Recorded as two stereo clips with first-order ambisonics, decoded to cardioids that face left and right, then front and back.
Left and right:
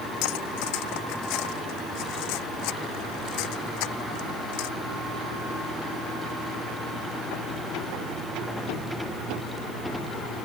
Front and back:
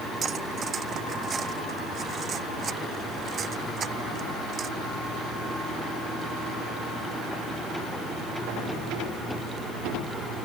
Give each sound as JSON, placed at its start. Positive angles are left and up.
{"t": 0.2, "sound": "cutlery clinking", "azimuth_deg": 115}